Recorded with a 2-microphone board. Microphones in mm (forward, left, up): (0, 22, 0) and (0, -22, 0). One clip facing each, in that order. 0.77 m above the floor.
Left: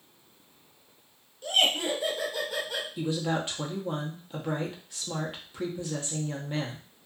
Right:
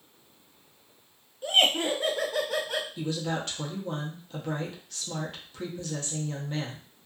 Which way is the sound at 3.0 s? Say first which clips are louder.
Left 2 dB; 15° left (ahead or behind).